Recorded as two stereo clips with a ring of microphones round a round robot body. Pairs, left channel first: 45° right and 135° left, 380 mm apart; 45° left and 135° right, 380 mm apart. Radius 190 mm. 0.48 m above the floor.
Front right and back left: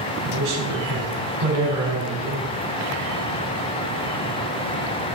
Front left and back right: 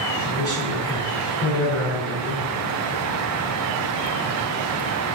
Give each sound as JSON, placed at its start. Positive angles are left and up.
{"t": 0.2, "sound": "a man speaking", "azimuth_deg": 125, "distance_m": 4.0}